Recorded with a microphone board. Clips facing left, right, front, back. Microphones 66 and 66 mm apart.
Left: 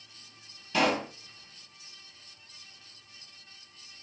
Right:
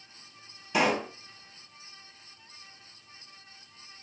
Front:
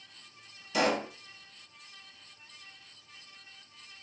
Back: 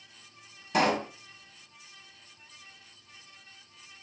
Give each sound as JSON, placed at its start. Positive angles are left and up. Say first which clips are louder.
{"t": 0.7, "sound": "a pop", "louder": "right 1 dB, back 2 dB", "azimuth_deg": -155, "distance_m": 1.5}